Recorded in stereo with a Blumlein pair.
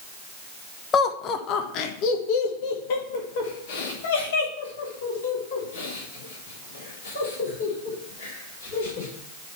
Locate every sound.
0.9 s laughter: 25° left, 0.8 m; by 9.1 s 60° left, 5 m